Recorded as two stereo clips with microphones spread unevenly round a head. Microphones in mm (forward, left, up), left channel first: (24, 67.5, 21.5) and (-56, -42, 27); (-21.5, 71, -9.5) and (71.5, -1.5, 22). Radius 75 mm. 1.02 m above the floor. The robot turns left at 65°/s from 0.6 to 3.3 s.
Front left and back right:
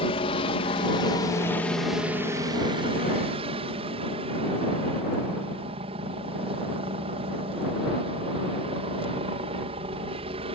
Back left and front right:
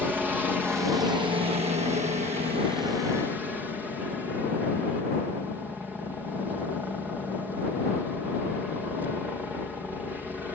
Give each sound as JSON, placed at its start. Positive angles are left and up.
{"t": 0.0, "sound": "a helicopter", "azimuth_deg": 45}